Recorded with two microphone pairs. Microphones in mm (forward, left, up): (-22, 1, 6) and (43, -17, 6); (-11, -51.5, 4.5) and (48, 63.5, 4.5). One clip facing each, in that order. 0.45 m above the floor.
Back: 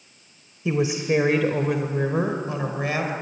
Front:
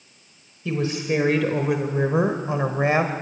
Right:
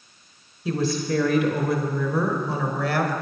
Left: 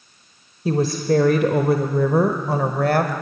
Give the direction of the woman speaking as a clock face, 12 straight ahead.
9 o'clock.